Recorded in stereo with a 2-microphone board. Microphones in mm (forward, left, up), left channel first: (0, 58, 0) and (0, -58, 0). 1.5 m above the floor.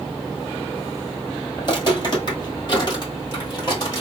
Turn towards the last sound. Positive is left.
turn(degrees=35)  # may be behind; listen again after turning